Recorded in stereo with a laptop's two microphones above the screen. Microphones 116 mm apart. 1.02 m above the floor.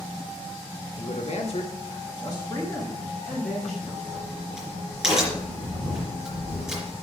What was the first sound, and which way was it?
A man speaking, 80° left.